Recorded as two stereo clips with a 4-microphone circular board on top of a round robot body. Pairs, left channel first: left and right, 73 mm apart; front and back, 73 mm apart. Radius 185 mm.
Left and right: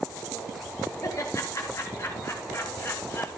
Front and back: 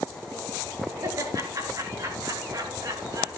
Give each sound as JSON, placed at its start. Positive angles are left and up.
{"t": 1.0, "sound": "laughter", "azimuth_deg": 135, "distance_m": 9.5}